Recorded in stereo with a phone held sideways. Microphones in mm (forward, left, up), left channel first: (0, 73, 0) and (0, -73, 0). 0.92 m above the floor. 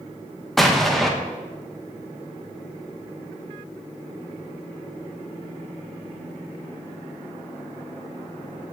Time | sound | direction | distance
0.6 | an explosion | centre (ahead or behind) | 1.0 m